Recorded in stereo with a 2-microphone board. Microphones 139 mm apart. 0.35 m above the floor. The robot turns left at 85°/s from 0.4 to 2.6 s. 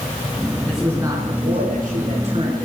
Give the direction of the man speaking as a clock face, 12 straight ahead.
12 o'clock.